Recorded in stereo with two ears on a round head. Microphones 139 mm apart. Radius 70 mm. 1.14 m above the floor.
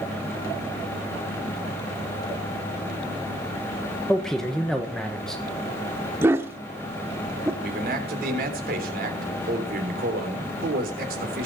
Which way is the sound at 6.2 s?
15° right (ahead or behind).